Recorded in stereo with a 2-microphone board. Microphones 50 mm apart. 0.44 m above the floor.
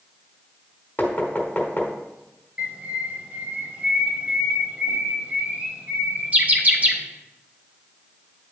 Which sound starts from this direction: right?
A bird, at 2.6 s.